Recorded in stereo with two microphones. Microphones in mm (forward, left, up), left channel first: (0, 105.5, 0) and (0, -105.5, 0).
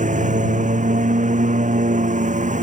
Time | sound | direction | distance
0.0 | a lawn mower | 35° right (ahead or behind) | ?